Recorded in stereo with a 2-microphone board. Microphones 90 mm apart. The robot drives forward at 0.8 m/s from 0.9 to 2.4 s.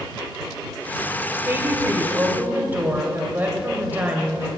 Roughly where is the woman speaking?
Right.